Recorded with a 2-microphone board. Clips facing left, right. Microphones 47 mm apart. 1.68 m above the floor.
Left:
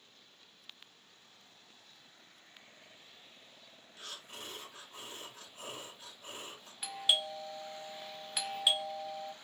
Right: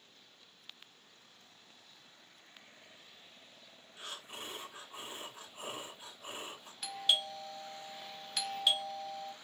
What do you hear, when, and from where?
4.0 s breathing: 20° right (ahead or behind), 1.2 m
6.8 s a doorbell: 10° left (ahead or behind), 0.6 m